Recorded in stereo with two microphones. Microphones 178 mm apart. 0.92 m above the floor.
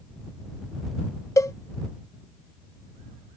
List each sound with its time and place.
1.4 s a cowbell: 15° left (ahead or behind)